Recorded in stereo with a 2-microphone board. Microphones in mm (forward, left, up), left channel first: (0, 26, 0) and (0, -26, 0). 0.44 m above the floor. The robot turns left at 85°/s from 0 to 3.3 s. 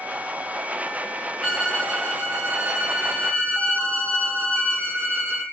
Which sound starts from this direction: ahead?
A violin, at 1.4 s.